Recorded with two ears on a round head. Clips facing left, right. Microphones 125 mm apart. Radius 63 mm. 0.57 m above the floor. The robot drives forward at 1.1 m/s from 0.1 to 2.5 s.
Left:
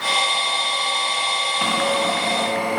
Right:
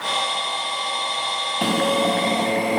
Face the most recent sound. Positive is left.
turn(degrees=-30)  # may be behind; listen again after turning